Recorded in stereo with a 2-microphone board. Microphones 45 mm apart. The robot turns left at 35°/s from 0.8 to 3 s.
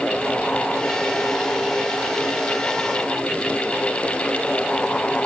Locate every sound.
Only background noise.